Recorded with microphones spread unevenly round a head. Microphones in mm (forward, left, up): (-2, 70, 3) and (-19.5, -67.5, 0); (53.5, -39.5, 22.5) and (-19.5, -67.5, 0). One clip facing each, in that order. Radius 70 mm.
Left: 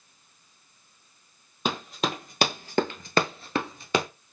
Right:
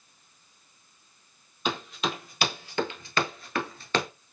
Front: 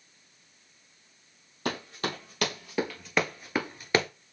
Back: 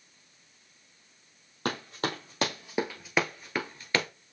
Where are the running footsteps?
125° left, 2 m; by 4.1 s 10° left, 1.1 m.